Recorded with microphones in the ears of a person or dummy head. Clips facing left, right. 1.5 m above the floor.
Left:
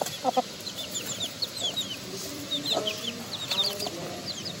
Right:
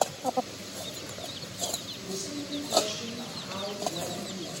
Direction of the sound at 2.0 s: 45° right (ahead or behind).